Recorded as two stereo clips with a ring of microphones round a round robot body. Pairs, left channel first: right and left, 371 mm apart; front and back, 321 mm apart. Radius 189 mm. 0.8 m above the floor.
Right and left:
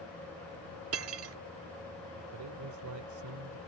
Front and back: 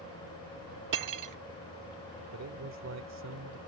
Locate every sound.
0.9 s cutlery clinking: 145° left
2.3 s a man speaking: 135° left